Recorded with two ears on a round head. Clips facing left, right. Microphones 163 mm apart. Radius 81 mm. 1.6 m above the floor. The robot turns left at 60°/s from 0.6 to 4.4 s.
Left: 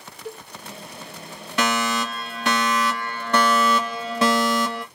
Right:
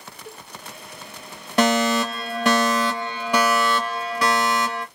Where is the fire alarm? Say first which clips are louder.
Right 5 dB; 60° right, 1.3 m; by 4.8 s 130° left, 1.3 m.